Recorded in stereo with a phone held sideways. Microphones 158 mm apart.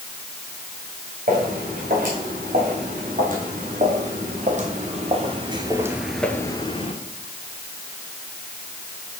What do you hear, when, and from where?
1.3 s footsteps: 60° right (ahead or behind), 5 m; by 7.0 s 40° left (ahead or behind), 1.1 m